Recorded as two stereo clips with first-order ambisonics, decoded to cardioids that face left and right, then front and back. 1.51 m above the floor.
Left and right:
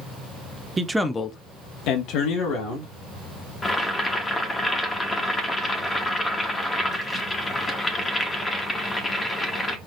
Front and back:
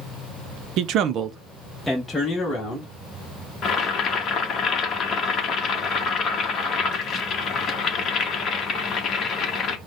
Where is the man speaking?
160° right, 0.6 m; by 2.9 s 75° left, 1.4 m.